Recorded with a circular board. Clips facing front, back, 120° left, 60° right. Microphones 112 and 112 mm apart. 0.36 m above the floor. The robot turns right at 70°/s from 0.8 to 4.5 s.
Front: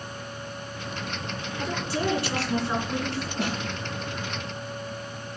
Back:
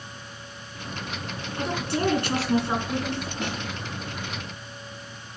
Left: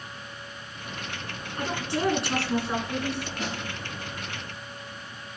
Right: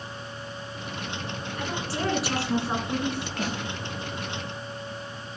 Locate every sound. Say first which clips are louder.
1.6 s a woman speaking: back 3 dB, left 3 dB; 170° left, 4 m; by 3.3 s 70° right, 4 m
3.4 s a snare drum: front 2 dB, right 3 dB; 20° right, 6.5 m; by 3.6 s 5° right, 6.5 m